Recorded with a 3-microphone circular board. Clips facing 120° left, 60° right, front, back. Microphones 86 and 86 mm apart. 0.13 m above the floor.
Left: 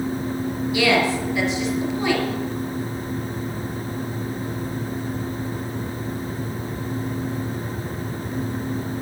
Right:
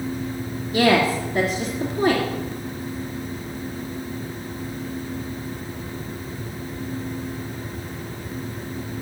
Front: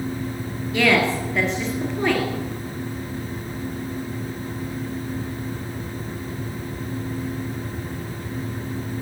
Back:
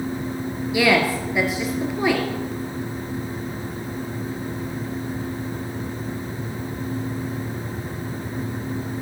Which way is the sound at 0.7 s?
100° right.